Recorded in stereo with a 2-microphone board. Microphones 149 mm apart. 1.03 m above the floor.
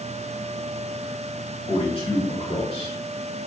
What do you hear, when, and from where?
1.7 s a man speaking: 35° left (ahead or behind), 3.5 m